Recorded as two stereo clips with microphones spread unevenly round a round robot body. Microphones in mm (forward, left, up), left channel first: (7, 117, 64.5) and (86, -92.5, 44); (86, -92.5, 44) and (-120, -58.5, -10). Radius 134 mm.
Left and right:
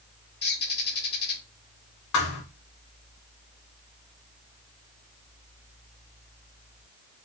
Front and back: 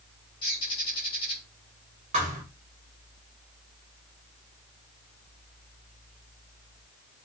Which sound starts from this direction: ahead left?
A bird, at 0.4 s.